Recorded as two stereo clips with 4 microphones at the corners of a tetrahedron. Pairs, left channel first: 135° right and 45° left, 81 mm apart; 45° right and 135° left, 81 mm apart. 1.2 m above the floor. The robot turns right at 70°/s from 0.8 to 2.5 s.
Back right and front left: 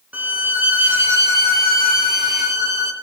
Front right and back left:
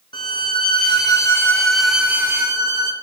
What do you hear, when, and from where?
0.1 s a violin: 25° right, 1.0 m; by 2.9 s 95° left, 1.0 m